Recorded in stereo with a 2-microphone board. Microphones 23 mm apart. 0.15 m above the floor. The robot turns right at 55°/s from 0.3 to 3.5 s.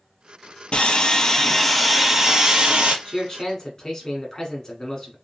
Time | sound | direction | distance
0.7 | sawing | 120° left | 0.9 m
3.0 | a man speaking | 30° left (ahead or behind) | 1.2 m